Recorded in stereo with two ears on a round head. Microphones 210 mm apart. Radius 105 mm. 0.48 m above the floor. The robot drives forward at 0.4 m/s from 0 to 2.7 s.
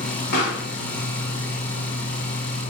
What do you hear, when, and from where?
0.3 s a pop: 40° left (ahead or behind), 1.1 m; by 0.7 s 45° left (ahead or behind), 1.0 m